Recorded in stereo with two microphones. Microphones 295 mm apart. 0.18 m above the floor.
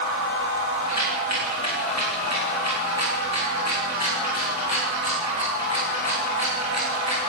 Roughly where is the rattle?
Right.